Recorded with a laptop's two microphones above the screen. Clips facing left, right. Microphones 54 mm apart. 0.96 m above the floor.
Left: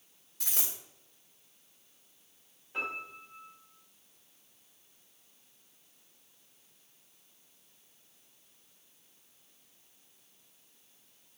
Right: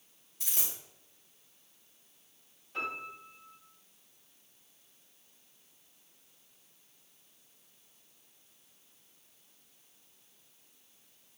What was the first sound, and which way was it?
A dropped coin, 80° left.